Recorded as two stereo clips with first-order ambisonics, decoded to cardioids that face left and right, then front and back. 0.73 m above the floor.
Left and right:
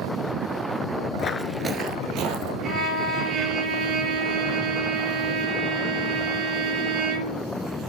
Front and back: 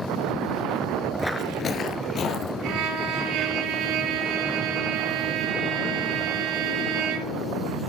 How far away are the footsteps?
About 0.7 m.